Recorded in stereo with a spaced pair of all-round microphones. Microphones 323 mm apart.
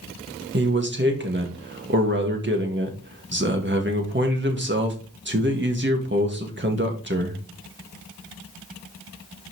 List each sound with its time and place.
0.5 s a man speaking: 35° right (ahead or behind), 1.8 m